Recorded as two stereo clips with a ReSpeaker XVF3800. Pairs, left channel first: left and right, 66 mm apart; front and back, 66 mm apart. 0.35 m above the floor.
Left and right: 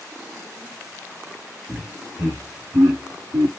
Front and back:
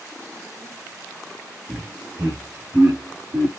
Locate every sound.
1.7 s laughter: 140° right, 4.5 m; by 3.5 s 125° right, 4 m